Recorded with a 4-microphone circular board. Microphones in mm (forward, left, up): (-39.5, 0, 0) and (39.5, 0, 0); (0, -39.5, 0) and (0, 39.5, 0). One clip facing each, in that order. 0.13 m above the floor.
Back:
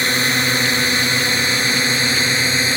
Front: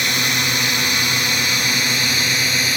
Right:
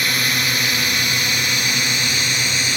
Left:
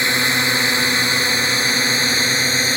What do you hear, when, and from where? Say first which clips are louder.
0.0 s a drone: back 3 dB, left 3 dB; 140° left; by 2.8 s 130° left